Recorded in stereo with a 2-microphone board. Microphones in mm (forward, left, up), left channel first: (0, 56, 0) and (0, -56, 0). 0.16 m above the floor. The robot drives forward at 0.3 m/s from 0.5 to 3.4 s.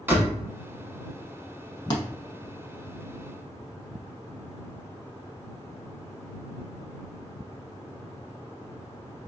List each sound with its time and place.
0.1 s a door slam: 20° right (ahead or behind), 0.9 m
1.9 s a thud: 40° left (ahead or behind), 0.6 m